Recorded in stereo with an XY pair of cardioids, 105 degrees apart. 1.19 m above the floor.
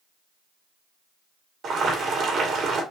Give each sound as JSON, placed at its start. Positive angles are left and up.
{"t": 1.6, "sound": "boiling", "azimuth_deg": -55, "distance_m": 1.8}